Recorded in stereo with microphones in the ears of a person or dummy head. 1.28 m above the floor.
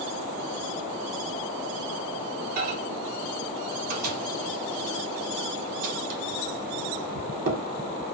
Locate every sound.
2.6 s a microwave: 45° right (ahead or behind), 0.8 m